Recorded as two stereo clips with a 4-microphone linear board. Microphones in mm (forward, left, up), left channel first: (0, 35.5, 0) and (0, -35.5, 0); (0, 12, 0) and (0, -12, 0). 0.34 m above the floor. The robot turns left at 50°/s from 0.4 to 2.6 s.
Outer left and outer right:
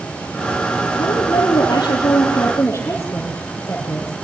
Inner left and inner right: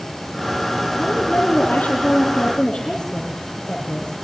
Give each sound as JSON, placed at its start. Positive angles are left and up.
{"t": 1.0, "sound": "a woman speaking", "azimuth_deg": 110, "distance_m": 9.5}